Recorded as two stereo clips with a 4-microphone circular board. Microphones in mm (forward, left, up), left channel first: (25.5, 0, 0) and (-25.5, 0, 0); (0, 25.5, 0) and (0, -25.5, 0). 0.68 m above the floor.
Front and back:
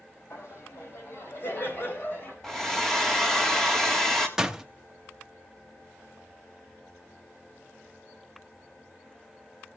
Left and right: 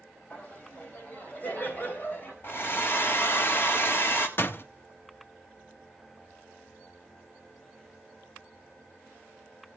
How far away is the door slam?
About 0.7 m.